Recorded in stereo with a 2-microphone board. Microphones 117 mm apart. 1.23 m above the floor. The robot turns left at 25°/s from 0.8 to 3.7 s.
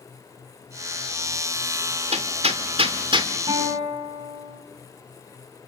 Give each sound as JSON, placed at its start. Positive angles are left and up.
{"t": 2.1, "sound": "hammering", "side_deg": -70, "distance_m": 2.5}
{"t": 3.5, "sound": "a guitar", "side_deg": -45, "distance_m": 7.5}